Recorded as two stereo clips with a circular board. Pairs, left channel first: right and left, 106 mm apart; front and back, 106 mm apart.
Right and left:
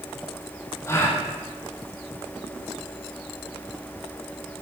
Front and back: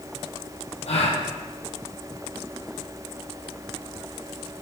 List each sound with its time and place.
0.9 s a gasp: 25° right, 2.5 m